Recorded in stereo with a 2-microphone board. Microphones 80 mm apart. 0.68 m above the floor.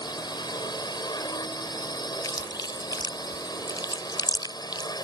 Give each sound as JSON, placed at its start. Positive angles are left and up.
{"t": 0.0, "sound": "a drone", "side_deg": 60}
{"t": 2.2, "sound": "chewing", "side_deg": 65}